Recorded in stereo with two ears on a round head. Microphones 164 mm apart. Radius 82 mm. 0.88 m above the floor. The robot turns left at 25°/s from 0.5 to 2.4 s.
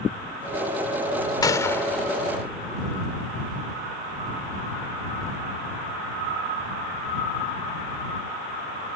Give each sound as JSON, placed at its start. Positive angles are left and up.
{"t": 1.4, "sound": "a gunshot", "side_deg": 20}